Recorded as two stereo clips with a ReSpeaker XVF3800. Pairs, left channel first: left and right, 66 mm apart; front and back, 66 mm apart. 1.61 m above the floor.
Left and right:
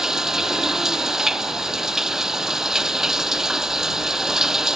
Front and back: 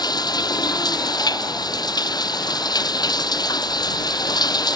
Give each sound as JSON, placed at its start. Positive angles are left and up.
{"t": 0.0, "sound": "running water", "azimuth_deg": -5}